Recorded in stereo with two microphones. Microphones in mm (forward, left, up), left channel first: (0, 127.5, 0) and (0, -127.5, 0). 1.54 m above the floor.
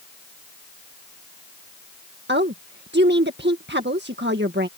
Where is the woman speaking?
45° right (ahead or behind).